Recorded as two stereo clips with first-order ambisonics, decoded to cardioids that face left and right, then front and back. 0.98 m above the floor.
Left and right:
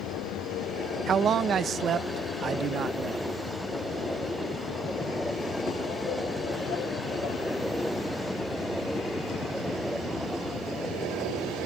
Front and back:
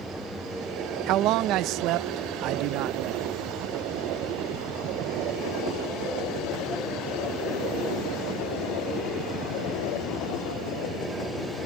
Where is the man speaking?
150° right.